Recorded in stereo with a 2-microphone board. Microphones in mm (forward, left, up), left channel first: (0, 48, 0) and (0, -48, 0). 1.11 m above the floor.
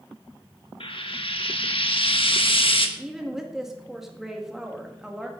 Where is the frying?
65° left (ahead or behind), 1.2 m.